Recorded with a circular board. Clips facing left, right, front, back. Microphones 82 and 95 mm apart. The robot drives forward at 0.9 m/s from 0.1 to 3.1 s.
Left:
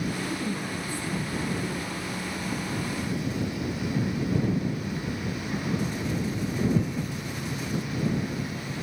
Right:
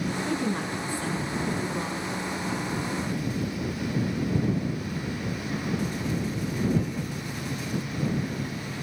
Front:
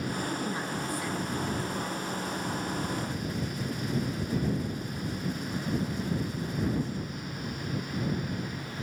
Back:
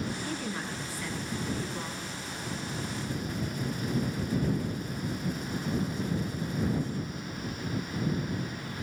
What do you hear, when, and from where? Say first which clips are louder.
0.2 s a woman speaking: right 3 dB, front 3 dB; 65° right, 4.5 m; by 2.1 s 90° right, 4 m